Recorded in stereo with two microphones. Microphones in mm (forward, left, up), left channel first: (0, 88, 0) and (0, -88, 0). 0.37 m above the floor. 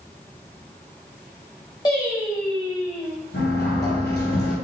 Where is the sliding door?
75° left (ahead or behind), 2.5 m.